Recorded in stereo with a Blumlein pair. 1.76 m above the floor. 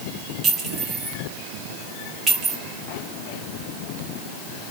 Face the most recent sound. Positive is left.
turn(degrees=-25)